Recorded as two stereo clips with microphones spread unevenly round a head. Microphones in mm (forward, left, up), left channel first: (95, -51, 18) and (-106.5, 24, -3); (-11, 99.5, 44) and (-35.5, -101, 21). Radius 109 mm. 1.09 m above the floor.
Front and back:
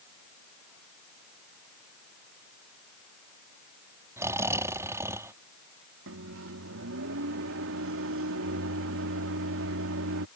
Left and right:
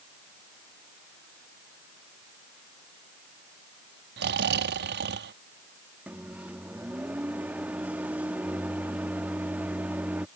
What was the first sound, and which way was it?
Snoring, 125° right.